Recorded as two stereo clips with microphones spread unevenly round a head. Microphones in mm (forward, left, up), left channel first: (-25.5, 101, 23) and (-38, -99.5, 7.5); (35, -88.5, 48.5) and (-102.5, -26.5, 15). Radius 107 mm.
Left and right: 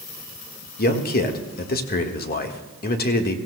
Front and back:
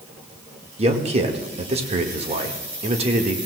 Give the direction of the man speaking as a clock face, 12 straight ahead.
8 o'clock.